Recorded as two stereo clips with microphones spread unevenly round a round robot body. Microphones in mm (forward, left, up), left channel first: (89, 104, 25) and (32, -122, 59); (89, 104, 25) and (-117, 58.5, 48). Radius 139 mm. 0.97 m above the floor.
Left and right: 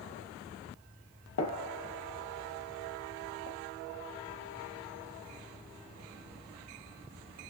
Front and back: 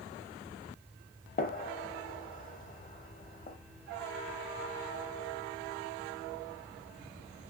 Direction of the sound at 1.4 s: 60° left.